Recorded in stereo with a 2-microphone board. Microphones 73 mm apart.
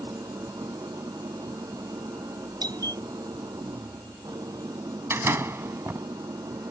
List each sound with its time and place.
0.0 s an engine running: 70° right (ahead or behind)
2.6 s a doorbell: 65° right (ahead or behind)
5.1 s a door slam: 40° right (ahead or behind)